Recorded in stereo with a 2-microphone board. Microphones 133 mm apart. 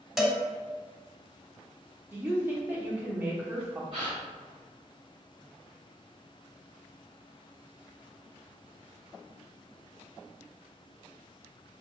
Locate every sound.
0.2 s a cowbell: 5° right (ahead or behind), 0.5 m
2.1 s a woman speaking: 15° right (ahead or behind), 0.8 m
3.9 s a gasp: 50° right (ahead or behind), 1.8 m